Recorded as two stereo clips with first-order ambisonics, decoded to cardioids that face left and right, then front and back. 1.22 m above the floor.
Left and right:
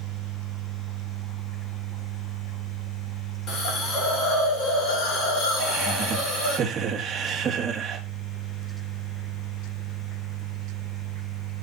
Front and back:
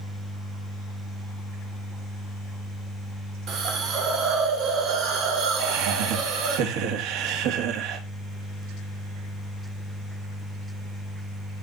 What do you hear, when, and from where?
3.5 s a hiss: 135° left, 4 m
5.6 s laughter: 160° right, 2.5 m